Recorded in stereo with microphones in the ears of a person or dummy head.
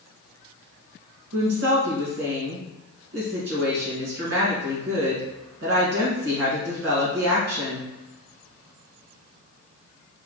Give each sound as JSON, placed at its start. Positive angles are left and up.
{"t": 1.3, "sound": "a woman speaking", "side_deg": -55, "distance_m": 1.7}